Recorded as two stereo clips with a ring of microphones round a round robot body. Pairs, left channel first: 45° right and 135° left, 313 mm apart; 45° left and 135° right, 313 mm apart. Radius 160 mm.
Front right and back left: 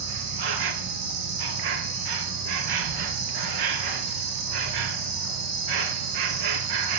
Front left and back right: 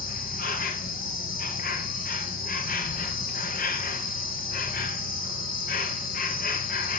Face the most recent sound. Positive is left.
turn(degrees=110)